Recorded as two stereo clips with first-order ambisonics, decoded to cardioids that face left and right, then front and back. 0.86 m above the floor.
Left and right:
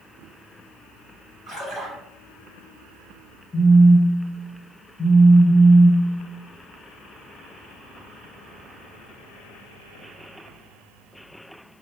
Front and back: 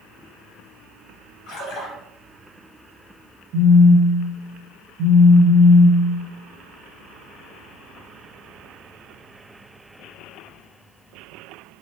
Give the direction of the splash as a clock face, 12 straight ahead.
12 o'clock.